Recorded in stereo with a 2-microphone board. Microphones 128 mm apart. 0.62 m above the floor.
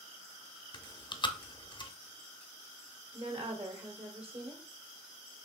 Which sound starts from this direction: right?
A woman speaking, at 3.1 s.